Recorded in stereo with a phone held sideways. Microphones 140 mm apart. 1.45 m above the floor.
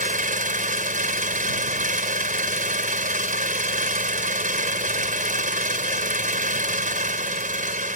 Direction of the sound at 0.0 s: 70° right (ahead or behind).